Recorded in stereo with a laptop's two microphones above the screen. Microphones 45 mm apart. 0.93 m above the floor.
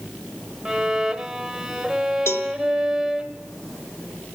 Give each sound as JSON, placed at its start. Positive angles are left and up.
{"t": 0.7, "sound": "a violin", "side_deg": -5, "distance_m": 1.3}
{"t": 2.3, "sound": "a cowbell", "side_deg": 70, "distance_m": 1.2}